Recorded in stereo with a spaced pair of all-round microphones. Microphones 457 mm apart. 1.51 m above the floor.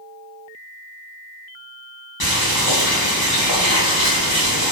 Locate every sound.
2.2 s boiling: 55° left (ahead or behind), 0.9 m